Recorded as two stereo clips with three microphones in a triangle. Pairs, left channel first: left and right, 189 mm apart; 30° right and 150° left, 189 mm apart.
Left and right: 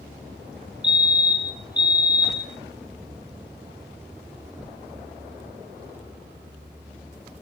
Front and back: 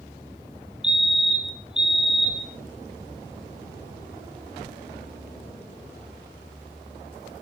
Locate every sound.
0.8 s a fire alarm: 70° left, 1.8 m